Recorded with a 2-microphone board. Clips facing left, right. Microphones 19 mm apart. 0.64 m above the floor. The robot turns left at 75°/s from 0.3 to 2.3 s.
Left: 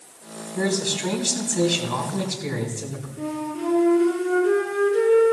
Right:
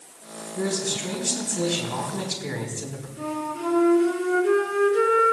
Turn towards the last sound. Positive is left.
turn(degrees=-30)  # may be behind; listen again after turning